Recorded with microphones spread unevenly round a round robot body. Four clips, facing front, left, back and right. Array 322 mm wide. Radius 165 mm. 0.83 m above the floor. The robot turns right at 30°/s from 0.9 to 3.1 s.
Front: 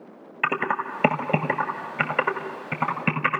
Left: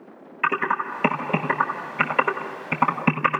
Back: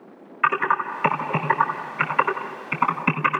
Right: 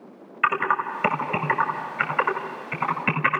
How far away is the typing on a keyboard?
About 1.4 m.